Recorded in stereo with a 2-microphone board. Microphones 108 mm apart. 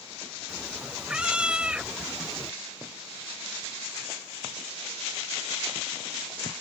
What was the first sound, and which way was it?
A cat meowing, 10° right (ahead or behind).